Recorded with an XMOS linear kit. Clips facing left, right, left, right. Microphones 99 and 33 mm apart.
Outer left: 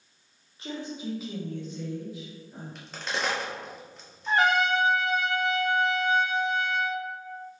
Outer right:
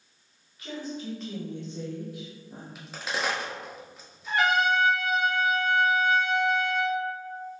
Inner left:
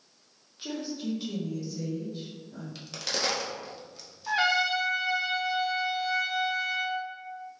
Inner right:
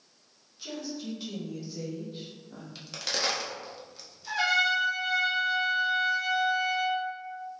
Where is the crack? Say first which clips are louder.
Even, even; 5° right (ahead or behind), 0.7 m.